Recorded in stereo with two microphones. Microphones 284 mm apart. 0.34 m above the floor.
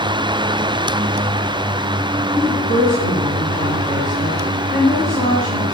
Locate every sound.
2.4 s a woman speaking: 25° left (ahead or behind), 3 m